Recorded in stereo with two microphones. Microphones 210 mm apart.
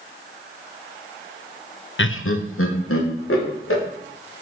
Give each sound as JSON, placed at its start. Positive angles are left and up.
{"t": 2.0, "sound": "laughter", "side_deg": 65, "distance_m": 0.6}